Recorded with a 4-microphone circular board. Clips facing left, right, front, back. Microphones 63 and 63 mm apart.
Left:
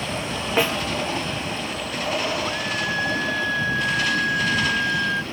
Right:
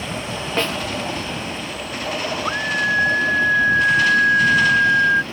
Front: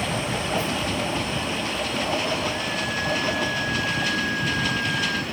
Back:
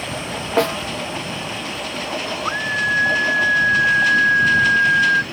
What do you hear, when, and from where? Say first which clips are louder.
0.6 s a snare drum: left 1 dB, back 8 dB; 170° left
2.5 s a scream: right 5 dB, back 6 dB; 145° right